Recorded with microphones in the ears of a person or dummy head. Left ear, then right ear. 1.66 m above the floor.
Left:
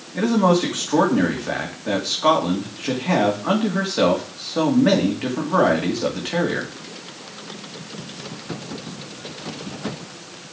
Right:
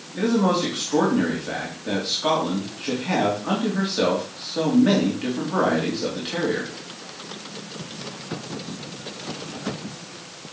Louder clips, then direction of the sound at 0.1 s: Left 3 dB; 30° left (ahead or behind).